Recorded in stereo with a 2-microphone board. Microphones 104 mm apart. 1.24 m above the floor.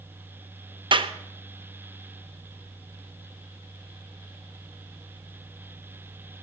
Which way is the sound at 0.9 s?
50° right (ahead or behind).